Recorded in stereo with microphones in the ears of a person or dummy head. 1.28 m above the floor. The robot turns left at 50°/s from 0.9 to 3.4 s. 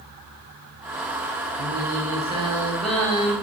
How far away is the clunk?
I don't hear a clunk.